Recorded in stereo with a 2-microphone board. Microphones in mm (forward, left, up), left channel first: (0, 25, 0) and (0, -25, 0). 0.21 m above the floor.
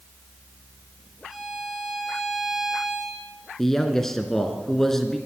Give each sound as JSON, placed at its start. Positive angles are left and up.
{"t": 1.3, "sound": "a violin", "side_deg": -5, "distance_m": 5.5}
{"t": 3.6, "sound": "a man speaking", "side_deg": 5, "distance_m": 2.5}